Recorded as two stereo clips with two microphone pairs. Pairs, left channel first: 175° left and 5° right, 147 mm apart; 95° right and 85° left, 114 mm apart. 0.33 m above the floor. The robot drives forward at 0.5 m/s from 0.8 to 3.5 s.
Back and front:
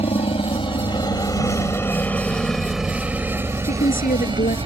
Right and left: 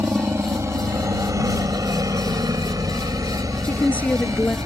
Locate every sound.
0.0 s a helicopter: 145° left; by 4.7 s 30° left
3.6 s a woman speaking: 170° right